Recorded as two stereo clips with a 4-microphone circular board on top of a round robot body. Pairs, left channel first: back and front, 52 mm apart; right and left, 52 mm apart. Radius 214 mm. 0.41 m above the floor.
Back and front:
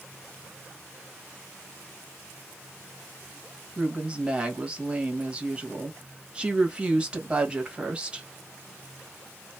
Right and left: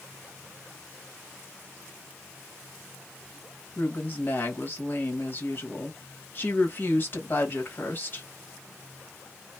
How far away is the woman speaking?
About 1.7 m.